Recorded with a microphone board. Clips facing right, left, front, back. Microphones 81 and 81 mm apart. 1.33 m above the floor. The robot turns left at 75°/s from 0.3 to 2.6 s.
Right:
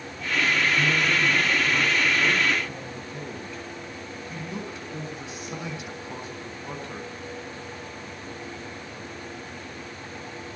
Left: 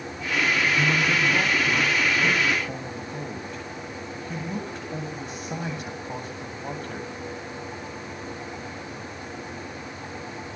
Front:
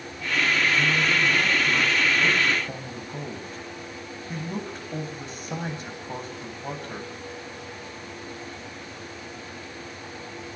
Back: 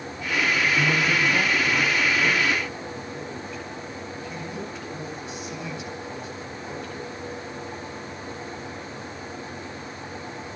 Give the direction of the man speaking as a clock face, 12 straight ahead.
6 o'clock.